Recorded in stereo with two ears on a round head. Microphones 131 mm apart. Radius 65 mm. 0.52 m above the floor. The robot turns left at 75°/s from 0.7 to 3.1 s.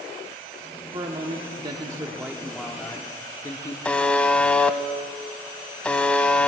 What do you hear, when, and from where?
0.9 s a man speaking: 60° right, 0.7 m; by 3.8 s 135° left, 0.7 m
3.9 s a buzzer: 5° left (ahead or behind), 0.5 m